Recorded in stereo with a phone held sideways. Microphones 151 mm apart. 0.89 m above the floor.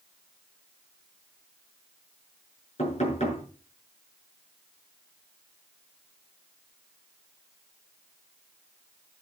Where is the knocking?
45° left (ahead or behind), 7.5 m.